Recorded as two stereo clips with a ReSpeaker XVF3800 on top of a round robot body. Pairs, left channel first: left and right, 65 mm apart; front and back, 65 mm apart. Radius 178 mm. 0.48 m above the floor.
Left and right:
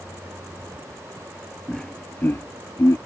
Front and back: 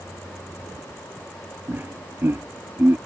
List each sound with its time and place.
1.7 s laughter: 170° left; by 3.0 s 125° left